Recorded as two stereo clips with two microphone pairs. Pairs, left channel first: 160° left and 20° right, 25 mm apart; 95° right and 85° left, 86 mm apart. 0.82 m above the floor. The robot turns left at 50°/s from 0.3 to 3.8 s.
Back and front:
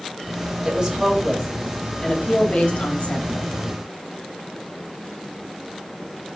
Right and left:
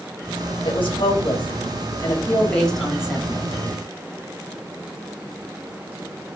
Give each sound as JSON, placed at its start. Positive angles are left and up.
{"t": 0.7, "sound": "a woman speaking", "azimuth_deg": -75, "distance_m": 3.5}